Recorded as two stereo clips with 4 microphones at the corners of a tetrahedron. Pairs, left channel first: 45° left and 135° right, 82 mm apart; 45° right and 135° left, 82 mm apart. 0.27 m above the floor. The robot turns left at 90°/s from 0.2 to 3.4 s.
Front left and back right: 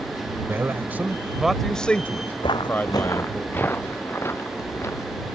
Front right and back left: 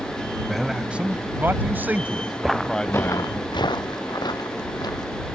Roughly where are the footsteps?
Ahead left.